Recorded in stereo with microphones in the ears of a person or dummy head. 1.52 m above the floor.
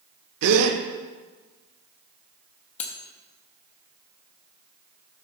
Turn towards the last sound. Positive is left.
turn(degrees=40)  # may be behind; listen again after turning